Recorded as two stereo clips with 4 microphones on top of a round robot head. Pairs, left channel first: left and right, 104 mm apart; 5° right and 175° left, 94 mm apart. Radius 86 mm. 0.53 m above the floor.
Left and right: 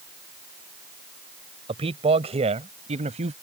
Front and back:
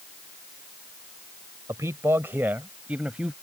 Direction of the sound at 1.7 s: 115° right.